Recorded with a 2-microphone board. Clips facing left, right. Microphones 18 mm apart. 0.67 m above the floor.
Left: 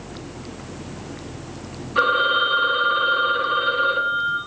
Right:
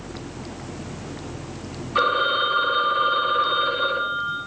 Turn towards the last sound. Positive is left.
turn(degrees=-40)  # may be behind; listen again after turning